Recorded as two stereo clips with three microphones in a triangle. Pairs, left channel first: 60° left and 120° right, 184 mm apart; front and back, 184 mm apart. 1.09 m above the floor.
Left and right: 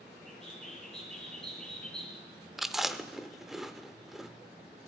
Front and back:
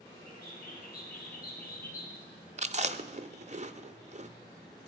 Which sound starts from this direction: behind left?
Chewing, at 2.6 s.